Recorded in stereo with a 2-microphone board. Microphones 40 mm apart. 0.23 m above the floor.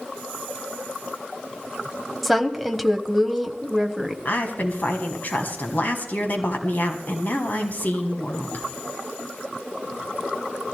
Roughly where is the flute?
I don't hear a flute.